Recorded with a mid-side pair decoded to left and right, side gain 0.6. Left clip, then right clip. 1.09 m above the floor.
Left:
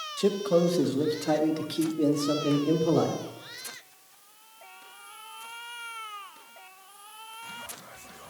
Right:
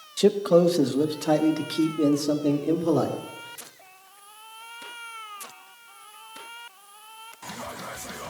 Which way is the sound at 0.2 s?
35° right.